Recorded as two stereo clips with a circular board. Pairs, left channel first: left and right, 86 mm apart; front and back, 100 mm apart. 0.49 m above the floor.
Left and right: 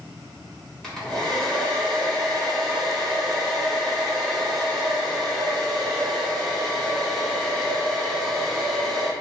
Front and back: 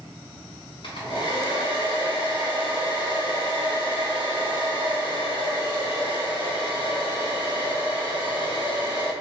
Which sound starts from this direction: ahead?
A hair dryer, at 0.8 s.